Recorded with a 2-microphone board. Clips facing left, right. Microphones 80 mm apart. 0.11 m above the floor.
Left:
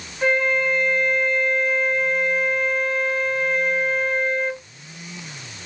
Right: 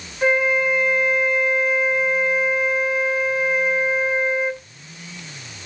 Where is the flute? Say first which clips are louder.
Right 2 dB; 10° right (ahead or behind), 0.7 m.